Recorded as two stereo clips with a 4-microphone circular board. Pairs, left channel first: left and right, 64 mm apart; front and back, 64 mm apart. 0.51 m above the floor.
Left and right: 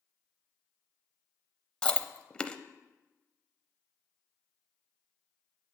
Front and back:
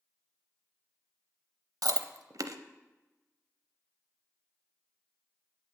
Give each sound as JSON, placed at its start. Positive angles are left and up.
{"t": 1.8, "sound": "chewing", "azimuth_deg": 165, "distance_m": 0.6}